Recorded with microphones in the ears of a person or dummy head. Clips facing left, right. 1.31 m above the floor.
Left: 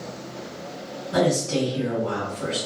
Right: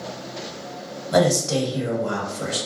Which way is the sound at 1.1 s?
75° right (ahead or behind).